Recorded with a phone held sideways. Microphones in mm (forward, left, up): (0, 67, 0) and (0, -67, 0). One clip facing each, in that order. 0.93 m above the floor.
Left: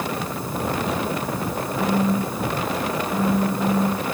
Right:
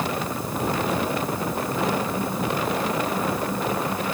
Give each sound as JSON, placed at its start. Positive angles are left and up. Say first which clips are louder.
{"t": 1.8, "sound": "a phone buzzing", "louder": "left 6 dB", "side_deg": 40, "distance_m": 3.5}